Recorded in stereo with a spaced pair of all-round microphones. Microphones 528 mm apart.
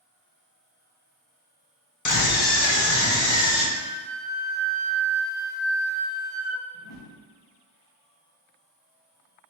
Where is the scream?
35° left (ahead or behind), 0.5 m; by 3.6 s 70° left (ahead or behind), 1.3 m.